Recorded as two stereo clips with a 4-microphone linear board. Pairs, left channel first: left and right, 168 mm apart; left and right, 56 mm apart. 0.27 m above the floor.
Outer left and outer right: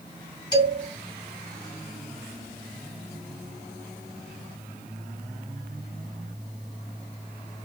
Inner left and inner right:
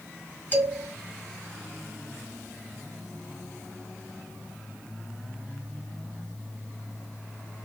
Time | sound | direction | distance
0.5 | a man speaking | 25° left (ahead or behind) | 1.7 m